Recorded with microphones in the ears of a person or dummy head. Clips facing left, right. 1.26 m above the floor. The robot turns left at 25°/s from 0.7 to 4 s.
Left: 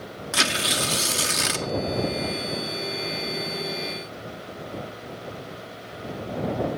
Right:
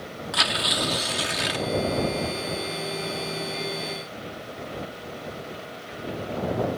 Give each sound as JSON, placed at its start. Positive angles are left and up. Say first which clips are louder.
{"t": 0.3, "sound": "tearing paper", "louder": "left 2 dB", "side_deg": 40}